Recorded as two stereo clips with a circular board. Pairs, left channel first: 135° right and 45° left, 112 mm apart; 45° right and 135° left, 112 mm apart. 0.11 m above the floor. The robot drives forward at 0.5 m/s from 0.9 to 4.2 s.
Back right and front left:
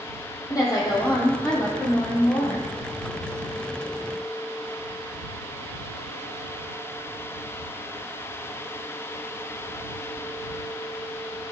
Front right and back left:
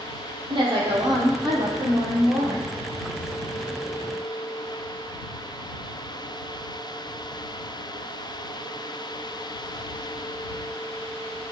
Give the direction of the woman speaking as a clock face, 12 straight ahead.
6 o'clock.